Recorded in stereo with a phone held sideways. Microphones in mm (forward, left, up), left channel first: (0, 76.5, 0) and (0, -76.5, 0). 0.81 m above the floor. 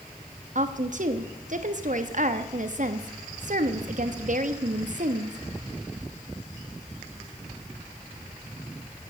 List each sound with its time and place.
0.6 s a woman speaking: 60° right (ahead or behind), 1.1 m